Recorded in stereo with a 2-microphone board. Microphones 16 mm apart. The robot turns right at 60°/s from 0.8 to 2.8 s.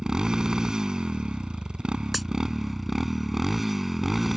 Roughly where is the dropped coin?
Centre.